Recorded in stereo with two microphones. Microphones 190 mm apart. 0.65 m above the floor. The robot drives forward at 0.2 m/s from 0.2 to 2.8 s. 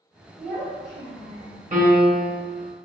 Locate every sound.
0.4 s a child speaking: 60° right (ahead or behind), 1.8 m; by 1.6 s 70° right (ahead or behind), 1.7 m
1.7 s a piano: 40° right (ahead or behind), 1.4 m; by 2.4 s 45° right (ahead or behind), 1.3 m